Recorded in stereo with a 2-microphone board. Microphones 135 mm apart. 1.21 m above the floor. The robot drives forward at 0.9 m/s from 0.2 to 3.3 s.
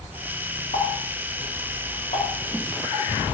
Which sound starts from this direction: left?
A running tap, at 0.7 s.